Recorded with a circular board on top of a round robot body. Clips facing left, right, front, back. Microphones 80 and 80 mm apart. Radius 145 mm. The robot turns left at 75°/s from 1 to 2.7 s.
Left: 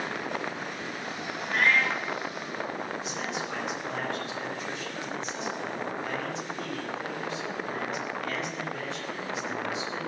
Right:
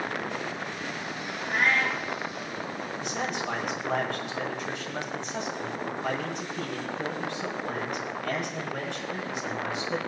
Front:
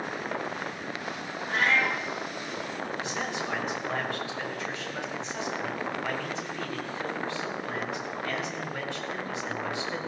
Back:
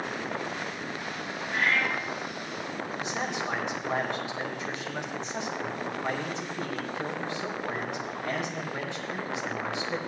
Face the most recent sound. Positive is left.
turn(degrees=-120)